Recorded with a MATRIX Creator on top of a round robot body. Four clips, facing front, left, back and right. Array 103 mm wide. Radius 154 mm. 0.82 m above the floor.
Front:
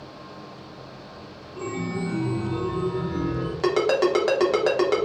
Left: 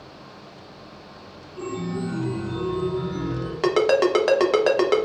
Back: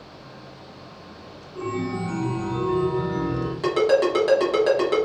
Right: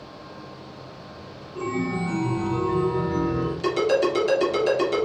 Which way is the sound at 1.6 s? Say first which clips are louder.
Right 2 dB, back 2 dB; 85° right.